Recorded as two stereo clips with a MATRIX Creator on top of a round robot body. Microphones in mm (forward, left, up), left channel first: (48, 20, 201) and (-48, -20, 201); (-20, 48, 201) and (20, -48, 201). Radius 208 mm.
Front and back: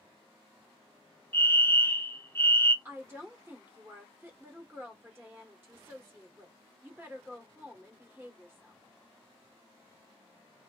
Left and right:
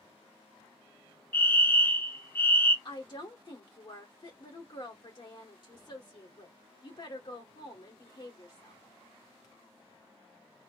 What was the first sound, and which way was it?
A fire alarm, 75° left.